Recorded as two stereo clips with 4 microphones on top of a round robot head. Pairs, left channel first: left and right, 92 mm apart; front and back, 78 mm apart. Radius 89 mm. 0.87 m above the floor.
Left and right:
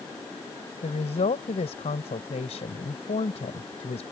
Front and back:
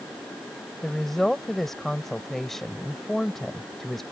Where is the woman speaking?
85° left.